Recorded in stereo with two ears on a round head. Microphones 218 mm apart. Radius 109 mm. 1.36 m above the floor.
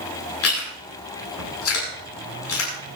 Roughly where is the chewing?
Left.